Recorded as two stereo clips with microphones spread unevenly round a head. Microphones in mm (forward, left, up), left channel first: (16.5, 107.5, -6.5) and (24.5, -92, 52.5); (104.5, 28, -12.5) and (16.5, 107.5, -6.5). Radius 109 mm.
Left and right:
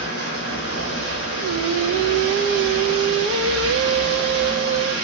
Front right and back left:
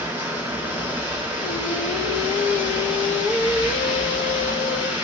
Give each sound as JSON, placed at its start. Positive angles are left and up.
{"t": 0.0, "sound": "running water", "azimuth_deg": -90, "distance_m": 6.0}
{"t": 1.4, "sound": "singing", "azimuth_deg": -55, "distance_m": 0.8}